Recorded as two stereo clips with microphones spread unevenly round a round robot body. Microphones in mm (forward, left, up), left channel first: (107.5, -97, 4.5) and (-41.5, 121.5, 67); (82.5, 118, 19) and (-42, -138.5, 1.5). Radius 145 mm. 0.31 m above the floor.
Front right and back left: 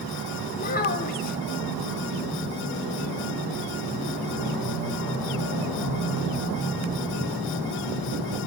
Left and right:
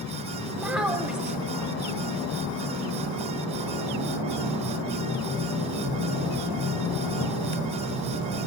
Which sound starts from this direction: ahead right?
A child speaking, at 0.5 s.